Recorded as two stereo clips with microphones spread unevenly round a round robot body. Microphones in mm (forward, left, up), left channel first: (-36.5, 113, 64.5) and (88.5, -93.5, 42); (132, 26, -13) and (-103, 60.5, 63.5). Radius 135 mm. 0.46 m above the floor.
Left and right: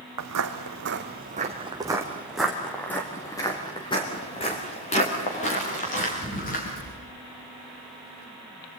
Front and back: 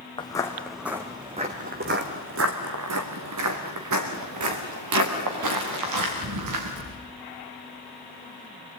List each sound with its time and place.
0.2 s footsteps: 85° right, 1.8 m; by 6.9 s straight behind, 6 m